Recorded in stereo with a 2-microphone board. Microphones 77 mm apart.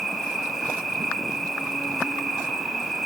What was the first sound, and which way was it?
An insect, centre (ahead or behind).